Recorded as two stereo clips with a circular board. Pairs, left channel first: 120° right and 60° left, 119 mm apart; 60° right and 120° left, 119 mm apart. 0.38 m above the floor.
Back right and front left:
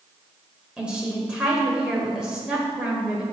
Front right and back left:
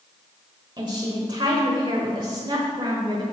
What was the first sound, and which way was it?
A woman speaking, 140° left.